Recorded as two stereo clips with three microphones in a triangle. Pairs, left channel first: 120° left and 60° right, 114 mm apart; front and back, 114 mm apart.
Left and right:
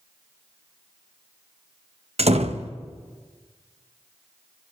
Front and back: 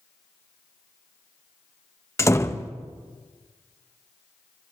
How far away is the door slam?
About 1.0 m.